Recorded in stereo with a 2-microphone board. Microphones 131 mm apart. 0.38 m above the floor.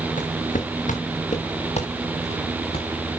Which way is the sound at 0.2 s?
75° left (ahead or behind).